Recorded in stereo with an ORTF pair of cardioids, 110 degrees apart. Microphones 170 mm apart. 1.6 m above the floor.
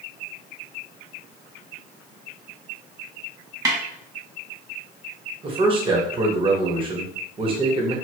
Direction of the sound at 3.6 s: 20° right.